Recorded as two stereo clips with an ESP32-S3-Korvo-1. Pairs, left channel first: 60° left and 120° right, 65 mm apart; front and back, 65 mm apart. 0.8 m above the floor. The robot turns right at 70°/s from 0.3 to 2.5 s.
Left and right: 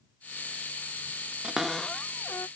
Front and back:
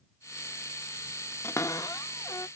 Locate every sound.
1.4 s a cupboard door: 45° right; by 2.5 s 25° left